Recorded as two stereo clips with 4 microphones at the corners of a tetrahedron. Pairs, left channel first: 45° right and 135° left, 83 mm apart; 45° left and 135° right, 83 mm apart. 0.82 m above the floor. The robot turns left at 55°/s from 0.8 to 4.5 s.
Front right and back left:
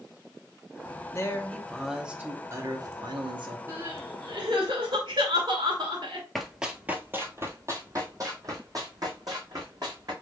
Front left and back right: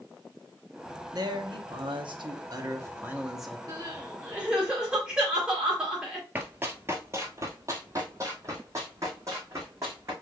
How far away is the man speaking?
About 0.9 m.